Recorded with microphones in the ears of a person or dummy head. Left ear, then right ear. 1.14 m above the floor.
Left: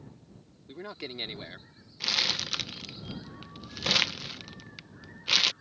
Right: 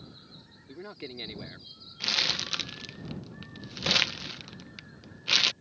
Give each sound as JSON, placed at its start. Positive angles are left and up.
{"t": 0.7, "sound": "a man speaking", "side_deg": 15}
{"t": 2.0, "sound": "crumpling", "side_deg": -5}